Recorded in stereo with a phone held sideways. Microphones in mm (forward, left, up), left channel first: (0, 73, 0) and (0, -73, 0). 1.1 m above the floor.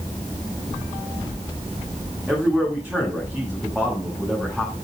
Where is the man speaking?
10° right (ahead or behind), 8 m.